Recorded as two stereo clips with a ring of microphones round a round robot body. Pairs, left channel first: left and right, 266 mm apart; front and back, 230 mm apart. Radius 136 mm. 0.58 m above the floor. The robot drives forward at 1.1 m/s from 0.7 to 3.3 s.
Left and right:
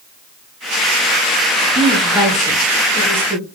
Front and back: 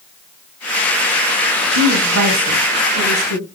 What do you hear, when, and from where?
1.8 s a woman speaking: 170° right, 6.5 m